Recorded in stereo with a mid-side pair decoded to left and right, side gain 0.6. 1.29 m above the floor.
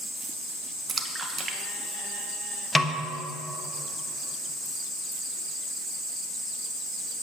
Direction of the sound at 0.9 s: 25° right.